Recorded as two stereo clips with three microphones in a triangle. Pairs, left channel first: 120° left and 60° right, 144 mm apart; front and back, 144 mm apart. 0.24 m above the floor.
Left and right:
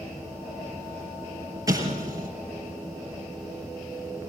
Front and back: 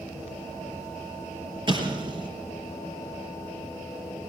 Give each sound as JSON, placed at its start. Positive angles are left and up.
{"t": 1.7, "sound": "an explosion", "azimuth_deg": -125, "distance_m": 4.0}